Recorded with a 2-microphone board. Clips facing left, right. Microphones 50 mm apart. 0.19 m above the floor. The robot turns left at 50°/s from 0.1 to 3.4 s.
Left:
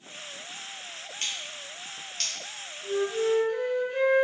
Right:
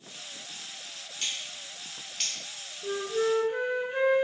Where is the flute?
40° right (ahead or behind), 0.5 m; by 4.2 s 15° right (ahead or behind), 0.5 m.